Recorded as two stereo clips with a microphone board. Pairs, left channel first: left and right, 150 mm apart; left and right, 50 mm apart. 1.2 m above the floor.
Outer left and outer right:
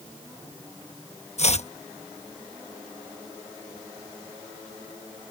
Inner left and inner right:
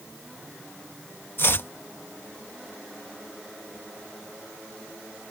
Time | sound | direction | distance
1.4 | chopping | 45° left (ahead or behind) | ?